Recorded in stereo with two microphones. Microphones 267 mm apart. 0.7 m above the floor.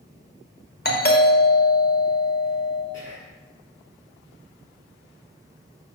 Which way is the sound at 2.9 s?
70° left (ahead or behind).